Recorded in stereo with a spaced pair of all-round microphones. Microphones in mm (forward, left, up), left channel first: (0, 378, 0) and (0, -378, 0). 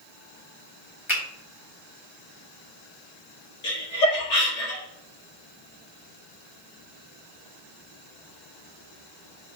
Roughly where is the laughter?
Left.